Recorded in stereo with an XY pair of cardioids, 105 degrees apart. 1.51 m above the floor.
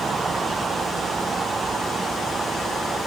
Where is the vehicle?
40° right; by 3.1 s 35° right.